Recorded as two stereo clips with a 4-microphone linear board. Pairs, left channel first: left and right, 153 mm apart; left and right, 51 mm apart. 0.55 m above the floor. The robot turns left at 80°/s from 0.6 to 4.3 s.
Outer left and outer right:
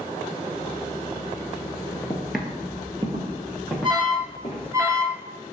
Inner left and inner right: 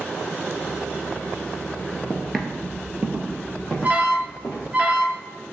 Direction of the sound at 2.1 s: 10° left (ahead or behind).